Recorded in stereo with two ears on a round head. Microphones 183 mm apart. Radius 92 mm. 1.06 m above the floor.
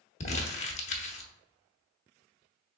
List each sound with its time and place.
0.2 s crumpling: 35° left (ahead or behind), 0.7 m